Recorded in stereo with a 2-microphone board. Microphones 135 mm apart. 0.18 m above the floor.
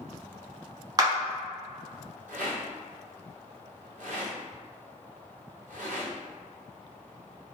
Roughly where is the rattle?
Right.